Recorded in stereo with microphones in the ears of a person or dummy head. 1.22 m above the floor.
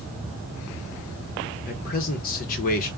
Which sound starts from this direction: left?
A man speaking, at 1.7 s.